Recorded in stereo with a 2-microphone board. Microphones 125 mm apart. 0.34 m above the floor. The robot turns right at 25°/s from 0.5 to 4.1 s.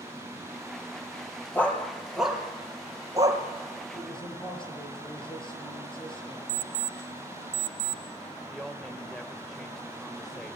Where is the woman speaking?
Centre (ahead or behind), 1.1 m.